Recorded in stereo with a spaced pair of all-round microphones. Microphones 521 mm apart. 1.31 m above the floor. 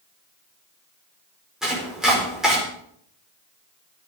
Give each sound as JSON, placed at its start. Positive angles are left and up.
{"t": 1.6, "sound": "chopping", "side_deg": 0, "distance_m": 5.0}